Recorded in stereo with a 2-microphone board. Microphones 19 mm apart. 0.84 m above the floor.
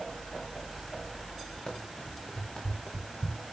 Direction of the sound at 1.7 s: 55° left (ahead or behind).